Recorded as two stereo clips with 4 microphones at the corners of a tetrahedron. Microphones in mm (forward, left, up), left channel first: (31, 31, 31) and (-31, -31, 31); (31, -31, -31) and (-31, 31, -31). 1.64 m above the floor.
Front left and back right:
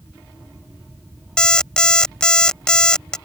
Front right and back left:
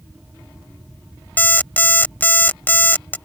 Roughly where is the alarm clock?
Ahead.